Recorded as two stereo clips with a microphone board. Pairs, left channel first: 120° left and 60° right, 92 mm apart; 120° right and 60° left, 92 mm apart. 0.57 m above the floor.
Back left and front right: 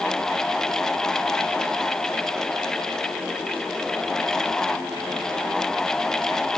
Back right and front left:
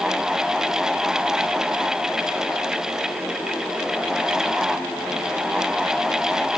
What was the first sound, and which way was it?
Only background noise.